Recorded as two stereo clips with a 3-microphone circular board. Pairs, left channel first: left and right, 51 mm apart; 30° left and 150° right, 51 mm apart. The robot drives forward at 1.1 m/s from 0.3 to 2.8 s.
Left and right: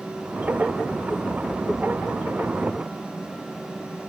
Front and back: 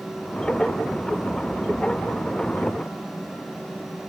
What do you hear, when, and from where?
Only background noise.